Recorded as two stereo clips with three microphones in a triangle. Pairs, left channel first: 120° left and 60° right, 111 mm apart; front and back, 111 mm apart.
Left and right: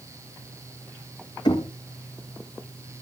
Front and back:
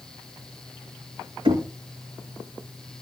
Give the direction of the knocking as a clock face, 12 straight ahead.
7 o'clock.